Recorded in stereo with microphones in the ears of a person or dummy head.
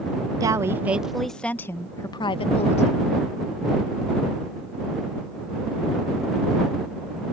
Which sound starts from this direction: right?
A woman speaking, at 0.4 s.